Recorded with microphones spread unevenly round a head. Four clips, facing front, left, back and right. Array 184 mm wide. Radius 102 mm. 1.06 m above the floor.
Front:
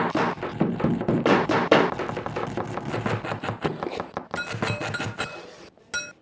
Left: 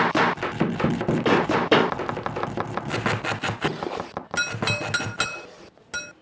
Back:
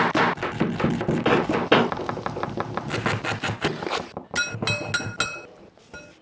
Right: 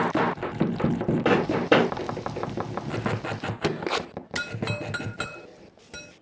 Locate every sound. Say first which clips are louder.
1.2 s footsteps: left 1 dB, front 1 dB; 10° right, 1.5 m